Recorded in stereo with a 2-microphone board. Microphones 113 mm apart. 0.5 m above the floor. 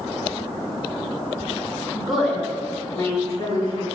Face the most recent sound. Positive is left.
turn(degrees=40)  # may be behind; listen again after turning